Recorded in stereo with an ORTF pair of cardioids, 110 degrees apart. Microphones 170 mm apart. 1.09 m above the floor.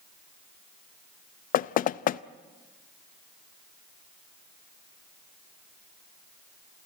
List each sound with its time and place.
1.5 s knocking: 55° left, 0.6 m